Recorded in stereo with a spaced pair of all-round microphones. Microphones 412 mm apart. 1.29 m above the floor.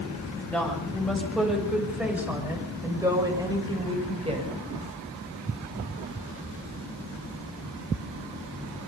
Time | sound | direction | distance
0.4 | a woman speaking | 5° left (ahead or behind) | 7 m